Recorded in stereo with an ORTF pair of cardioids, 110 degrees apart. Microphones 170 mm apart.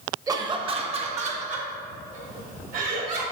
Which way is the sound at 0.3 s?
20° right.